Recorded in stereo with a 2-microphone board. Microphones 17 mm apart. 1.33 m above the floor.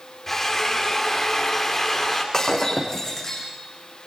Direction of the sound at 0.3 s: 20° left (ahead or behind).